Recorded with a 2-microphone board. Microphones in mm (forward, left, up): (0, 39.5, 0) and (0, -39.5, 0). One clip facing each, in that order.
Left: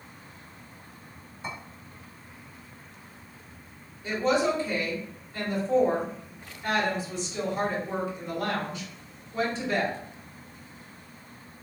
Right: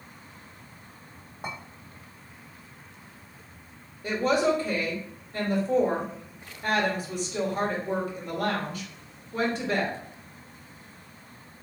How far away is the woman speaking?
About 1.7 m.